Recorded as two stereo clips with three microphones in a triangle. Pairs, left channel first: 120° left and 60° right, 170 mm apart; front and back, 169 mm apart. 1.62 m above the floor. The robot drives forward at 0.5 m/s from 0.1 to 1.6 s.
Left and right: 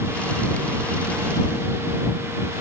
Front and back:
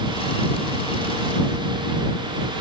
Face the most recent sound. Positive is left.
No sound to turn to.